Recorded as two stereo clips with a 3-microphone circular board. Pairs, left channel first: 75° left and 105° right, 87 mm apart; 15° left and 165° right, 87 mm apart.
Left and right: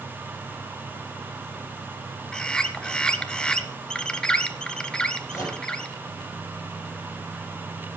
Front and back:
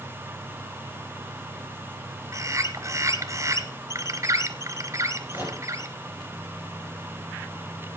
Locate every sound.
2.3 s a bird: 150° left, 0.9 m
5.3 s a microwave: 125° left, 6 m